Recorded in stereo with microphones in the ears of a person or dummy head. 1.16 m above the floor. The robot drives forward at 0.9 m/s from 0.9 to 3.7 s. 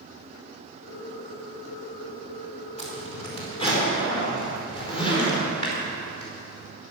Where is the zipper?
35° left (ahead or behind), 3 m; by 6.7 s 25° left (ahead or behind), 3.5 m.